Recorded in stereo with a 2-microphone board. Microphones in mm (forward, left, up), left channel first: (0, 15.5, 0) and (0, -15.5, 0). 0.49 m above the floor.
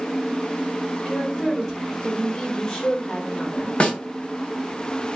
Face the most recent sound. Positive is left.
turn(degrees=35)  # may be behind; listen again after turning